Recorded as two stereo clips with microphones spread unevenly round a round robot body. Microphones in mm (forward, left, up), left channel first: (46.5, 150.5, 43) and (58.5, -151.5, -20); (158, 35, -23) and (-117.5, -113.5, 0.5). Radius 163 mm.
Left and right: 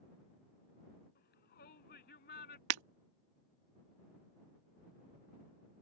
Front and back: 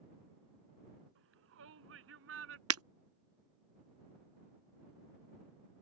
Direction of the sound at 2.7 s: 105° right.